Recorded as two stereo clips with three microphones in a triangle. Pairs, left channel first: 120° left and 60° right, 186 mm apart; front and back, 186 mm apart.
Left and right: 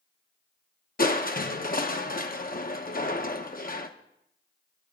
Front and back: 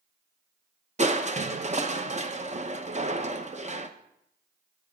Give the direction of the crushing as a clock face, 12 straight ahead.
7 o'clock.